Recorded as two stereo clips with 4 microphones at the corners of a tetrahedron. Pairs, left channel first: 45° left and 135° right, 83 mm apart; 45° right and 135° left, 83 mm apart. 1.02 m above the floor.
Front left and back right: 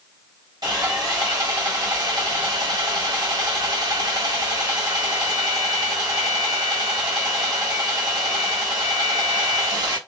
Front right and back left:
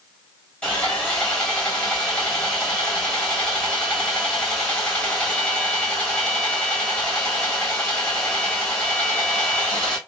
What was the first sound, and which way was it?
Sawing, 120° right.